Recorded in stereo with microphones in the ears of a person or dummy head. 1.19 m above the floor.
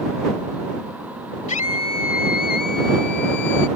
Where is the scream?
35° left (ahead or behind); by 3.7 s 60° left (ahead or behind).